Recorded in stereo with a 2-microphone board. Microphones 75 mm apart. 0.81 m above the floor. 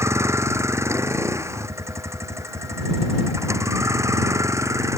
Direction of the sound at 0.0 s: 40° right (ahead or behind).